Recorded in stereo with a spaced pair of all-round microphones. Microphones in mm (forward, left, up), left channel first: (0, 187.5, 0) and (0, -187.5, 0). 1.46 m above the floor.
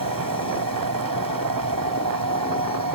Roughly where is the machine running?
Right.